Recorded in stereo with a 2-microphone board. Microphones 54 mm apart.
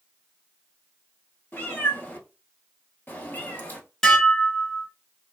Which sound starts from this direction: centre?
Dishes clattering, at 4.0 s.